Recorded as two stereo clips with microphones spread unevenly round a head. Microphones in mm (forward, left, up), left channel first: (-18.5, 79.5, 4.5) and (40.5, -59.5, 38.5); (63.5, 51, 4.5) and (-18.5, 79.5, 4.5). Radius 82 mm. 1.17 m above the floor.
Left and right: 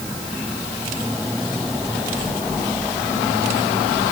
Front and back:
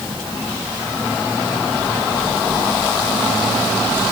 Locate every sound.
Only background noise.